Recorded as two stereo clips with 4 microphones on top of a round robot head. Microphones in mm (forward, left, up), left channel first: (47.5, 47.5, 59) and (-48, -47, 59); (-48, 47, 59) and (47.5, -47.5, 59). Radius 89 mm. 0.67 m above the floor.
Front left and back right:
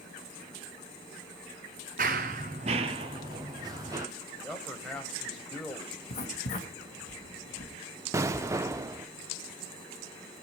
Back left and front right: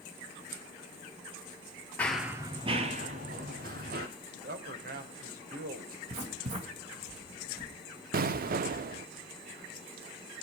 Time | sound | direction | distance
2.0 | running footsteps | 150° right | 0.8 m
4.3 | a man speaking | 40° right | 3 m
6.1 | writing | straight ahead | 2.5 m
8.1 | an explosion | 65° right | 0.6 m